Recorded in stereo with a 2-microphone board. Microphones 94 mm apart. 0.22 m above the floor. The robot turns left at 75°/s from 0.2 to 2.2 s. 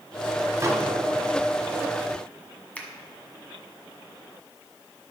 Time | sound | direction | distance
0.6 | a microwave | 35° right (ahead or behind) | 1.0 m
2.8 | a finger snap | 15° left (ahead or behind) | 1.4 m